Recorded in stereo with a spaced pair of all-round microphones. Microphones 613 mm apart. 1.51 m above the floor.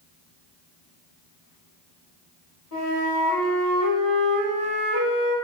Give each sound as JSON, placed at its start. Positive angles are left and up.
{"t": 2.7, "sound": "a flute", "side_deg": 35, "distance_m": 1.5}